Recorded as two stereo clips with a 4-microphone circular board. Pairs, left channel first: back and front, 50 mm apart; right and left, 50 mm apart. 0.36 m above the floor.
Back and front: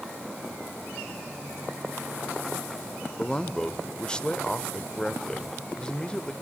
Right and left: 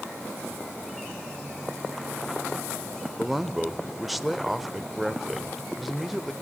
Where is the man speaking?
170° left, 0.9 m.